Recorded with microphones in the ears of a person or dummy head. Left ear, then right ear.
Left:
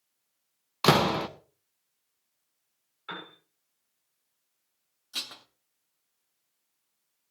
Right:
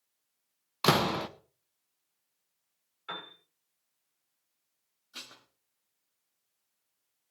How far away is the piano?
About 6 m.